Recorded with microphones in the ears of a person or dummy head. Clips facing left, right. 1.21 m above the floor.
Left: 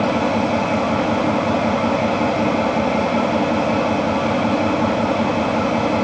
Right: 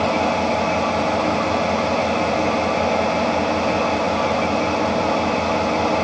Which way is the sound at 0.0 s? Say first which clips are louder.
Left 2 dB; 70° left (ahead or behind).